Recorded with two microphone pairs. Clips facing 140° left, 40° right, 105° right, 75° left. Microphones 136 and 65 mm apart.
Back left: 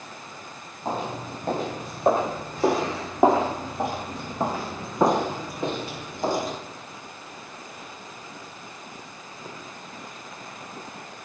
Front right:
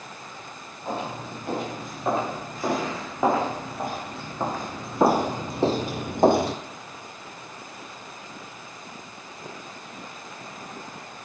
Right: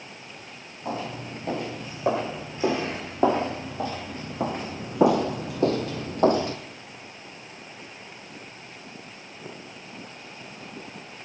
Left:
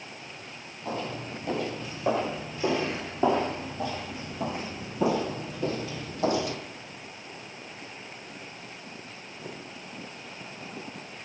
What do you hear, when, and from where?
0.8 s footsteps: 165° right, 4 m; by 6.6 s 45° right, 1.0 m